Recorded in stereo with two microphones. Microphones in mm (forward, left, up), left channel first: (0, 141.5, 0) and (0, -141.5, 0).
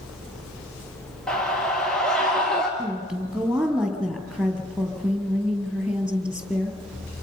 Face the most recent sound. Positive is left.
turn(degrees=0)  # may be behind; listen again after turning